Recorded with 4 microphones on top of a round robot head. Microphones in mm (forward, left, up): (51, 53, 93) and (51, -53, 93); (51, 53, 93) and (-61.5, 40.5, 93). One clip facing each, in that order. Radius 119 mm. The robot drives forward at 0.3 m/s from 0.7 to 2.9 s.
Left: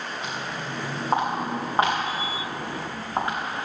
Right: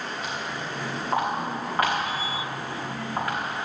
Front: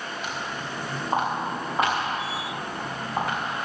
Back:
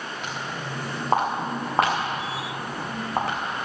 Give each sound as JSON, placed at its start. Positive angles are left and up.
{"t": 0.2, "sound": "footsteps", "azimuth_deg": 160, "distance_m": 5.0}